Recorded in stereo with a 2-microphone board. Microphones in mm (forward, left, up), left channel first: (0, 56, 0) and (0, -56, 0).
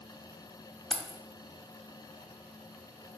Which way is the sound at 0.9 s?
5° left (ahead or behind).